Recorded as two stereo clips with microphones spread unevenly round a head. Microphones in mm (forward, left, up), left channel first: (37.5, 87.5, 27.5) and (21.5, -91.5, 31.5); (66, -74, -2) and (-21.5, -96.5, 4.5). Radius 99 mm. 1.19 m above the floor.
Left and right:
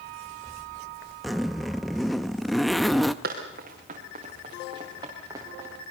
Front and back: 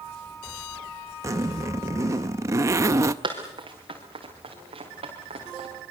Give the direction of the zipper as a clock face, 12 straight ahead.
6 o'clock.